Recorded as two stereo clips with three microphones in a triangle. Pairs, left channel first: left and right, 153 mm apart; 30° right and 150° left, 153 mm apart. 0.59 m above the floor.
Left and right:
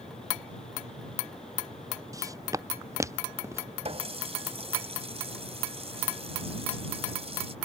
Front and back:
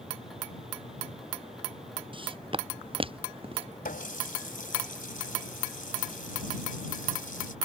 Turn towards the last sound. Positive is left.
turn(degrees=-45)